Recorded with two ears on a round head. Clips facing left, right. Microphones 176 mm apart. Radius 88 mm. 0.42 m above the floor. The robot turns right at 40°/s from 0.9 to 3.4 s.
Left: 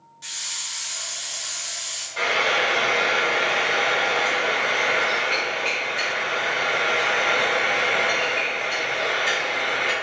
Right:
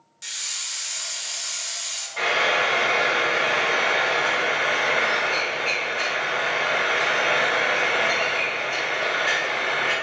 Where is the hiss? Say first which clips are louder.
Left 1 dB; 145° right, 0.7 m; by 2.1 s 95° right, 0.7 m.